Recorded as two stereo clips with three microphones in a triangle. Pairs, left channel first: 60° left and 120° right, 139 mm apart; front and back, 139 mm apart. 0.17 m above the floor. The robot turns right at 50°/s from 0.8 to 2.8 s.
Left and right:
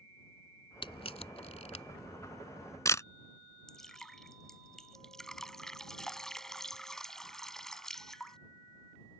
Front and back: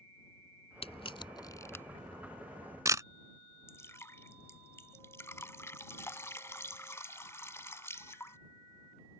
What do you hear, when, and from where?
0.8 s a camera shutter: 20° left; by 3.0 s 120° left
3.7 s dripping: 20° right